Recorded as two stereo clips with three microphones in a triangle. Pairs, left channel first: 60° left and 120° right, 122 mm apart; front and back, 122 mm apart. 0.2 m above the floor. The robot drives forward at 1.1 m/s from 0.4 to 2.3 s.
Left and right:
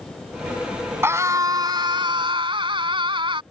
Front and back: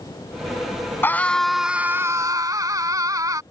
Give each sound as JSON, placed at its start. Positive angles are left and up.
{"t": 1.0, "sound": "a scream", "azimuth_deg": -60}